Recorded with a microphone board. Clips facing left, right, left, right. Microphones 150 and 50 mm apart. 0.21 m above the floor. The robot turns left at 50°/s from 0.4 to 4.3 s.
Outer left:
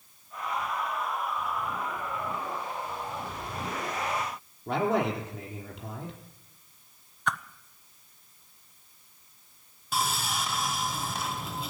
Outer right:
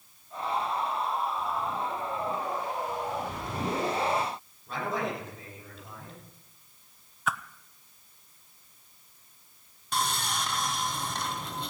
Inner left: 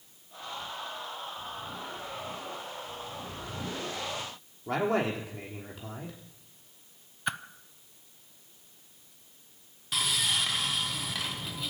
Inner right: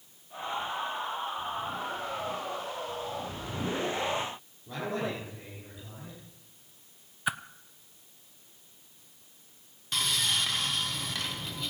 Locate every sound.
4.7 s a man speaking: 75° left (ahead or behind), 5.5 m
7.3 s a whoosh: 5° right (ahead or behind), 0.6 m
9.9 s sawing: 5° left (ahead or behind), 1.7 m